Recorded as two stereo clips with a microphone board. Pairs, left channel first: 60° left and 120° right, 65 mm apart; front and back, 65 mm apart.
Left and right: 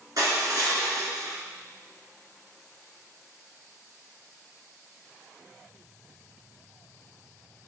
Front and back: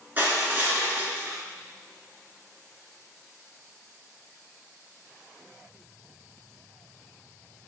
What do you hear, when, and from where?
0.2 s crushing: 125° right, 1.6 m